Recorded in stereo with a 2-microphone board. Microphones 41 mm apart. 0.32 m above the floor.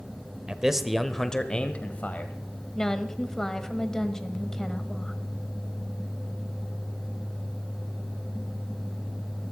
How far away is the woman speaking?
About 1.3 m.